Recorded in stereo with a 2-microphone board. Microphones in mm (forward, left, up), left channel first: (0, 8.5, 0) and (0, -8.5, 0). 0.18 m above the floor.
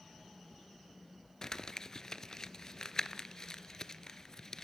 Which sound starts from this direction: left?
Crumpling, at 1.4 s.